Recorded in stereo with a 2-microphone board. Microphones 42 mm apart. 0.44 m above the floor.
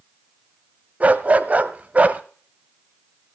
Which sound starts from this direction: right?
A dog barking, at 1.0 s.